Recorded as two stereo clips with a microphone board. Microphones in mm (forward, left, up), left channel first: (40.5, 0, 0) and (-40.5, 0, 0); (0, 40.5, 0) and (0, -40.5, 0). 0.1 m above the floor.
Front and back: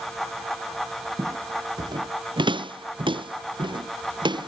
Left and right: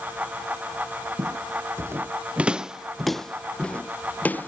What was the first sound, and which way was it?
Footsteps, 130° right.